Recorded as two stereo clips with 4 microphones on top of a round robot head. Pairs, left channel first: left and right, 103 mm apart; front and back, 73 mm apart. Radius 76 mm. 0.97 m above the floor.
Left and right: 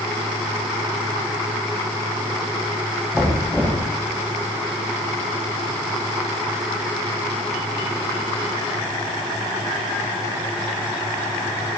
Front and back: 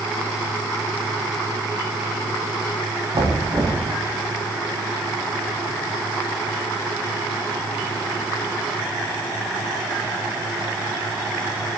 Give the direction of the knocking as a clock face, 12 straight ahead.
7 o'clock.